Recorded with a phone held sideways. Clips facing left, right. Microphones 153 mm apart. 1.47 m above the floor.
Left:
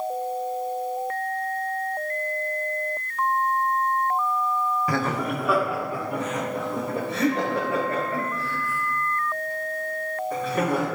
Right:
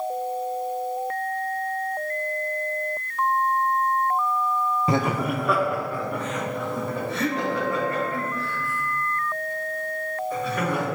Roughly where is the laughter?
Right.